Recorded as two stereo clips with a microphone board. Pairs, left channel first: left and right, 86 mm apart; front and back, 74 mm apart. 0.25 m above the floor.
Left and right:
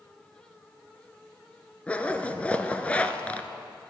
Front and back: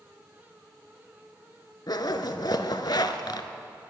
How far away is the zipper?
About 0.6 m.